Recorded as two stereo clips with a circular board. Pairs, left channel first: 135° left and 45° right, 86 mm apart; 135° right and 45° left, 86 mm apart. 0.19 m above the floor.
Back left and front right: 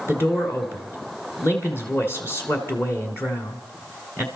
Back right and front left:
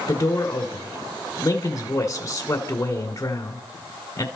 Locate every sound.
0.1 s a man speaking: 175° right, 1.7 m